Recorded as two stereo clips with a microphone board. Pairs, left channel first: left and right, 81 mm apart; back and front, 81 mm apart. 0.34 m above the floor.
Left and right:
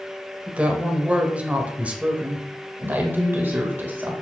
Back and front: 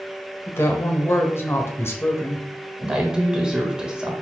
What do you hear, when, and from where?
0.5 s a woman speaking: 150° right, 1.2 m
2.8 s a woman speaking: 70° right, 1.5 m